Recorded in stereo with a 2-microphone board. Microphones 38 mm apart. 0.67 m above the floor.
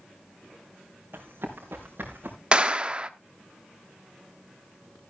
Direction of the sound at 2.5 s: 30° right (ahead or behind).